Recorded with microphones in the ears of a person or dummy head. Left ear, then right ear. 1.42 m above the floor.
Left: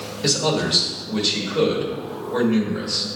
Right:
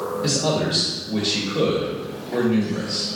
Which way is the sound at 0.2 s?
25° left (ahead or behind).